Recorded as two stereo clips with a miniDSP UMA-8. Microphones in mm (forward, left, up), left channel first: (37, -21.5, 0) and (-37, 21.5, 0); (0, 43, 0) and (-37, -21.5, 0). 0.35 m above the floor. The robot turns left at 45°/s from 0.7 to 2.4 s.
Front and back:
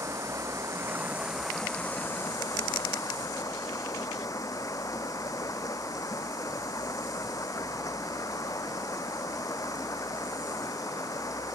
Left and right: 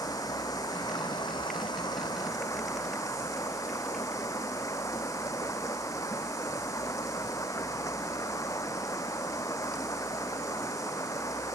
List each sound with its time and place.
0.0 s running water: 95° left; by 11.6 s 20° left